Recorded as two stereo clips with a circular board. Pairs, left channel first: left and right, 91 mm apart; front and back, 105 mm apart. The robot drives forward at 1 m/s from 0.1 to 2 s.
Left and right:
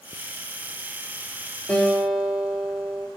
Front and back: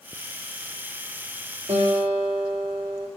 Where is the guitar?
165° left, 4.5 m.